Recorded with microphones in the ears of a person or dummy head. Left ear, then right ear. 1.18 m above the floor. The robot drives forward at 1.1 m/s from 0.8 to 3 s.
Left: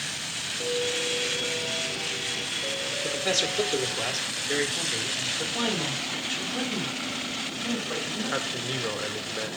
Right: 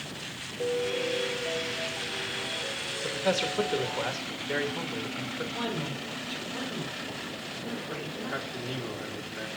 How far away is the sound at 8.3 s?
About 0.6 m.